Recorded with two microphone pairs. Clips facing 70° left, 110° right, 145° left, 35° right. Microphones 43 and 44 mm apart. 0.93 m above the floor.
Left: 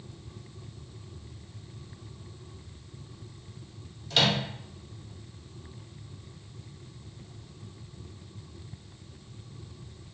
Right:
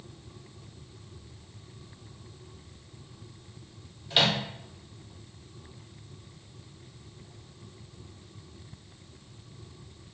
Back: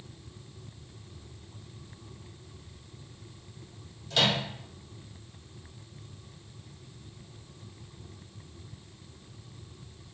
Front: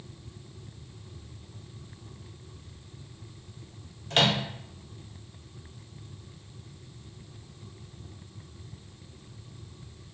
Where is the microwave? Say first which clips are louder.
Even, front 2 dB; 40° right, 0.5 m.